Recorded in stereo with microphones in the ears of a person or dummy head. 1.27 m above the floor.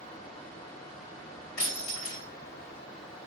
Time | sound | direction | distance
1.6 | breaking glass | 75° left (ahead or behind) | 3 m